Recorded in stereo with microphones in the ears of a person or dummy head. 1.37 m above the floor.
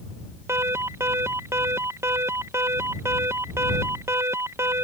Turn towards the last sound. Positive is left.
turn(degrees=-15)  # may be behind; listen again after turning